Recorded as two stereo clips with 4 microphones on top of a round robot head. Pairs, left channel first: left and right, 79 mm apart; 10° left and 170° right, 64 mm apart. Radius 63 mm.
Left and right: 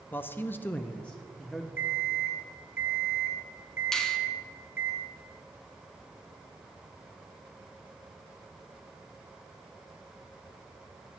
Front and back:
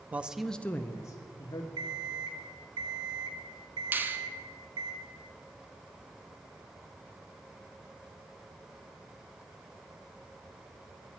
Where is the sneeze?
I don't hear a sneeze.